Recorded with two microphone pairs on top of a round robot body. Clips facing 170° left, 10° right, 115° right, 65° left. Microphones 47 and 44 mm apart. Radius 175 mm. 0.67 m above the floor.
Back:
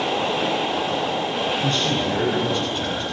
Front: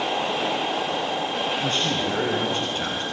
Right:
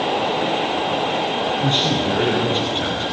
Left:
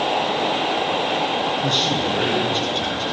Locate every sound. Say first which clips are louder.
1.6 s a man speaking: back 2 dB, right 1 dB; 55° right, 9.5 m